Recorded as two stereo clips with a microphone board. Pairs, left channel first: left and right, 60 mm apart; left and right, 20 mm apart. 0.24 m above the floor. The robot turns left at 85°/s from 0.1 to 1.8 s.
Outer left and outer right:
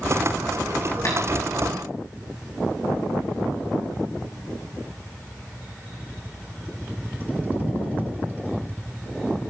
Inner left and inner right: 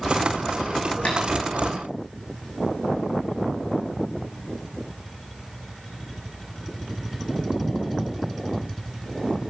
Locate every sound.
1.1 s tapping: 65° left (ahead or behind), 4 m; by 1.2 s 75° left (ahead or behind), 4 m